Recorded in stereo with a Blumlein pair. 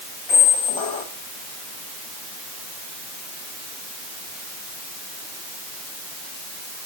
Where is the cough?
I don't hear a cough.